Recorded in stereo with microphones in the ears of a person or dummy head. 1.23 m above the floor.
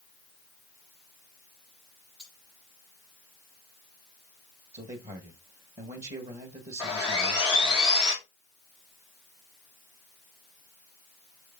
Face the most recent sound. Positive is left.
turn(degrees=-5)  # may be behind; listen again after turning